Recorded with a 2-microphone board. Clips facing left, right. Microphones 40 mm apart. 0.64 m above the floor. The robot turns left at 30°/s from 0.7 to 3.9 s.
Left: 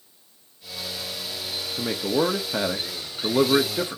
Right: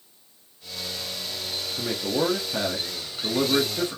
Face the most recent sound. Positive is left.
turn(degrees=25)  # may be behind; listen again after turning